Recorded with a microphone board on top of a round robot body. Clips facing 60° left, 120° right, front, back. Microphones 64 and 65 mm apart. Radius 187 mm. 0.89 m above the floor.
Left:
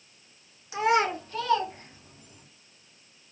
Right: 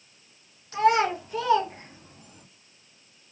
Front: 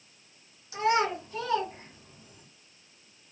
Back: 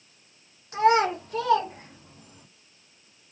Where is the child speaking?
140° left, 1.1 m; by 2.5 s 155° right, 1.3 m.